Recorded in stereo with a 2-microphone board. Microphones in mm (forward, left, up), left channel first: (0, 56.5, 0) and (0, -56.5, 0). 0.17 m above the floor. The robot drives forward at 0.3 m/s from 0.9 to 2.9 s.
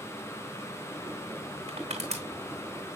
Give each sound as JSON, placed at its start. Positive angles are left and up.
{"t": 1.7, "sound": "crushing", "side_deg": -85, "distance_m": 2.0}